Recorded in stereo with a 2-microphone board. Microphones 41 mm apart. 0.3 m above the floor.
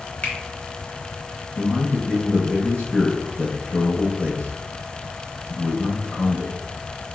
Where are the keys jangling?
I don't hear keys jangling.